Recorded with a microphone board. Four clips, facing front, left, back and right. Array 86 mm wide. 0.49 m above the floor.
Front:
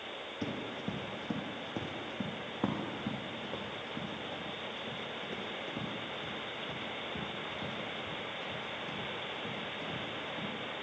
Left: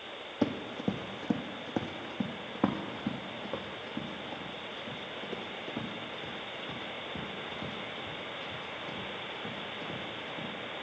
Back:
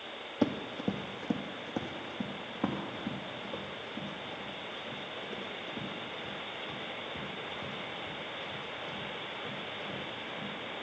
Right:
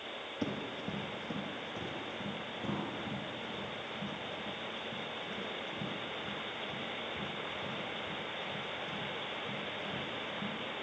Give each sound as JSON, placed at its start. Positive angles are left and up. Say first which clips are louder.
{"t": 0.4, "sound": "running footsteps", "louder": "left 7 dB, back 8 dB", "azimuth_deg": 150, "distance_m": 1.2}